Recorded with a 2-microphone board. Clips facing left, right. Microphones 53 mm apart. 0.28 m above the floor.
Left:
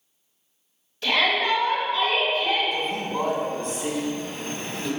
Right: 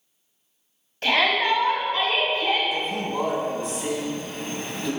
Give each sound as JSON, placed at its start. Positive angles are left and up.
{"t": 1.0, "sound": "a shout", "side_deg": -45, "distance_m": 1.7}
{"t": 2.7, "sound": "a man speaking", "side_deg": -5, "distance_m": 1.5}